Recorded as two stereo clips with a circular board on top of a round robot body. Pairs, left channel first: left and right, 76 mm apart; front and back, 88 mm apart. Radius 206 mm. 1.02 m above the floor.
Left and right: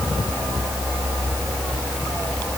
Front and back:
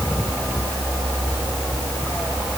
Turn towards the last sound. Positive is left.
No sound to turn to.